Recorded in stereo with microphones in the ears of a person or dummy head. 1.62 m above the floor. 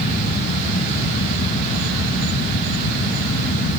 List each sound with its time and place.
Only background noise.